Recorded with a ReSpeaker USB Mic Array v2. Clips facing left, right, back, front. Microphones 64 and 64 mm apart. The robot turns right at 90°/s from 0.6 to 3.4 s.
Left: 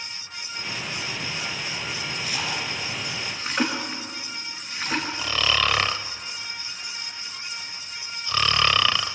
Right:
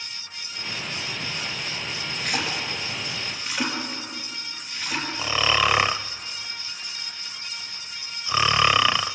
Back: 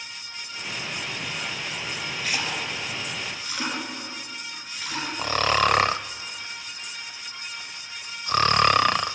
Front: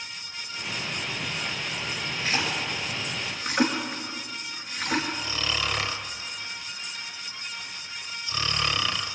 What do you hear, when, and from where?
2.2 s a splash: 65° right, 5 m; by 5.1 s 45° left, 5 m
5.2 s snoring: 160° right, 0.6 m